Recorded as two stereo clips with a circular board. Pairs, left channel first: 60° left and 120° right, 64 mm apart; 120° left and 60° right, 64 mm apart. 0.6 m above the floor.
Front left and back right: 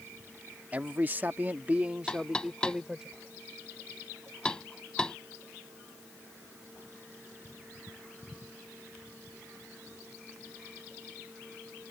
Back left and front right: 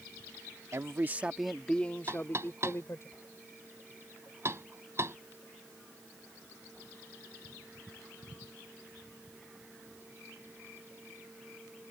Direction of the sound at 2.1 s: 15° right.